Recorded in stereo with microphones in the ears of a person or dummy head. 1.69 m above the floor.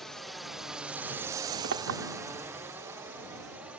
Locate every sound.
0.0 s a drone: centre (ahead or behind); by 3.8 s 5° right (ahead or behind)
1.6 s a clink: 70° right (ahead or behind)